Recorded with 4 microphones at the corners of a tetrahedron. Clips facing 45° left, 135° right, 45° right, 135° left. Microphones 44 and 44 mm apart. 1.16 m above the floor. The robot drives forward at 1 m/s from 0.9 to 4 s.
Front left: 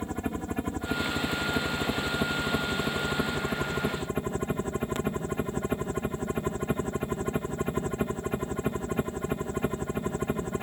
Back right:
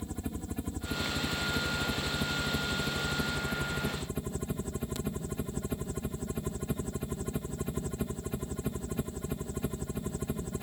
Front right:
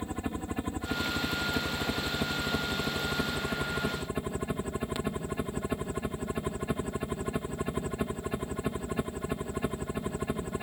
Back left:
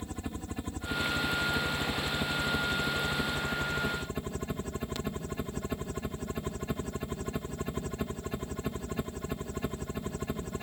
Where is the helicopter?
20° left; by 10.6 s 25° left.